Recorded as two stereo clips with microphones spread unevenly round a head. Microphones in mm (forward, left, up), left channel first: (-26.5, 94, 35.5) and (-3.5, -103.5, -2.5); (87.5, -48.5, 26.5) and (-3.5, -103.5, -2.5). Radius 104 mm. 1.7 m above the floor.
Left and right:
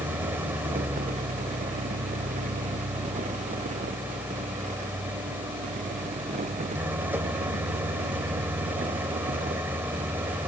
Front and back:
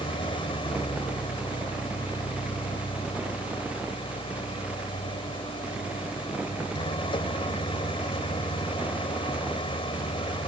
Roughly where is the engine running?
Ahead.